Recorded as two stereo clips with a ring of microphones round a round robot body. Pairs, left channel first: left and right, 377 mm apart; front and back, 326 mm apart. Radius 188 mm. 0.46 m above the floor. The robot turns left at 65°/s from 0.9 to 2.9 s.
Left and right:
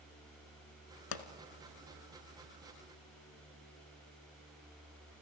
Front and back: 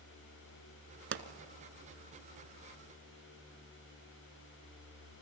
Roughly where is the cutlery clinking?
No cutlery clinking in this recording.